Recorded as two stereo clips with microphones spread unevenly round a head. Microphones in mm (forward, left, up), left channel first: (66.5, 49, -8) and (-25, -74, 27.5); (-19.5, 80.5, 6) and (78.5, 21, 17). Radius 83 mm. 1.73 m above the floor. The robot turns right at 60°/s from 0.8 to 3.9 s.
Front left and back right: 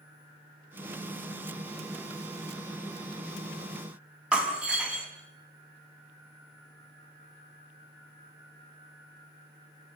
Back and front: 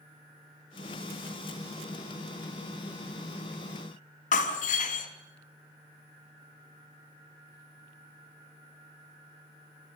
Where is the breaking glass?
155° left, 4 m.